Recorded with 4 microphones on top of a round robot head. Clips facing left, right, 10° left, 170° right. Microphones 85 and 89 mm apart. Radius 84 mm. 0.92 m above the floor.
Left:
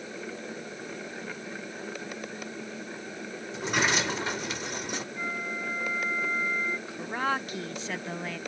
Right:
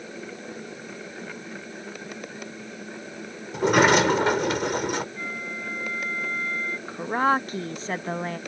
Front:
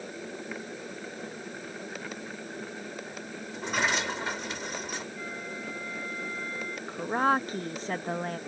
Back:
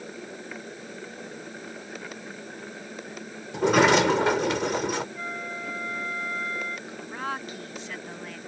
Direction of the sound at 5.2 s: 170° left.